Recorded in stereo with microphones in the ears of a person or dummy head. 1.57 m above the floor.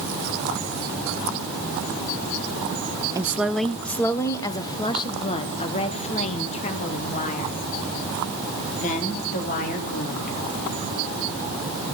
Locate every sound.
3.1 s a woman speaking: 10° right (ahead or behind), 0.8 m; by 10.4 s 45° left (ahead or behind), 4 m